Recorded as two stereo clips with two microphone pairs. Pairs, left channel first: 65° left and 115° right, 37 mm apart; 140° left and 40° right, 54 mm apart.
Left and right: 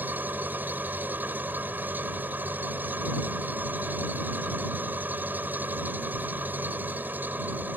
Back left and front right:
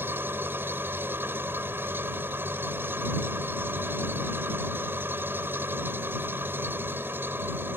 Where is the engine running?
85° right.